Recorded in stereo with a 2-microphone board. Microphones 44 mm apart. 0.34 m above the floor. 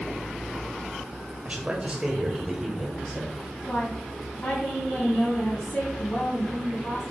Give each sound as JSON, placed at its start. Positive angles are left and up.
{"t": 1.4, "sound": "a man speaking", "side_deg": -35, "distance_m": 1.6}
{"t": 3.7, "sound": "a woman speaking", "side_deg": 40, "distance_m": 2.0}